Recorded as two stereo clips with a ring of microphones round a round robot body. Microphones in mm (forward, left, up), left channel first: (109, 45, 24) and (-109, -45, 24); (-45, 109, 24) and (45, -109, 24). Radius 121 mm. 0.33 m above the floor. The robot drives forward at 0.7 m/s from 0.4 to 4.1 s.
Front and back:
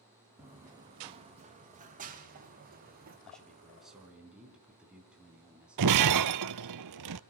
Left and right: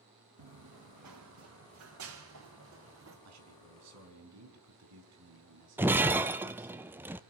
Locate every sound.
0.4 s running footsteps: 70° right, 1.6 m; by 3.1 s 105° right, 5.5 m
3.2 s a man speaking: 65° right, 4 m; by 6.8 s 70° right, 4 m
5.8 s breaking glass: 150° right, 0.9 m